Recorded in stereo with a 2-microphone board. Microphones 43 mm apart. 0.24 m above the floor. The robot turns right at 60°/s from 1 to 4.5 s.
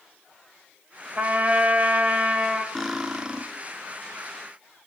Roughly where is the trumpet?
Right.